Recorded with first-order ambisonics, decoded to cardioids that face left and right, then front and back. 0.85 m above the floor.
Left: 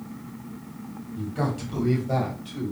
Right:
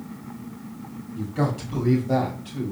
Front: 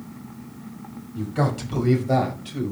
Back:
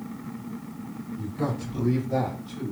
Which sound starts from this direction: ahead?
A man speaking, at 1.1 s.